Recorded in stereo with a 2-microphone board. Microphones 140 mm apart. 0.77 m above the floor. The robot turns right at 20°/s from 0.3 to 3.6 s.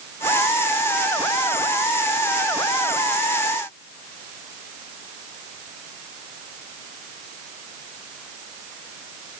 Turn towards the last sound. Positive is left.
No sound to turn to.